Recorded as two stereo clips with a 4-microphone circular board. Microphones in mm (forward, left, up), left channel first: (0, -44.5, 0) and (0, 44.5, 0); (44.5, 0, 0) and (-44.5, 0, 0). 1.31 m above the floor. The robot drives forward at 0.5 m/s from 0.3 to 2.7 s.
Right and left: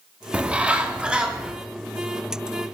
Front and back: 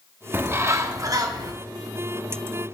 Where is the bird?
145° left, 0.8 m; by 1.5 s 165° left, 1.2 m.